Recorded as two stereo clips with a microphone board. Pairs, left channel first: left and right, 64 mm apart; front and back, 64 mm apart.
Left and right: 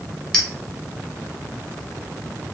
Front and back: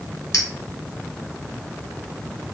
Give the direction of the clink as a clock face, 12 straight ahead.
12 o'clock.